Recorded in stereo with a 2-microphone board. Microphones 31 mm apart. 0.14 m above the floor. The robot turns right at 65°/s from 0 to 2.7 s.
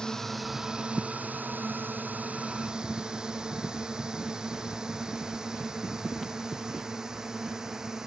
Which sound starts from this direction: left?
A drone, at 0.0 s.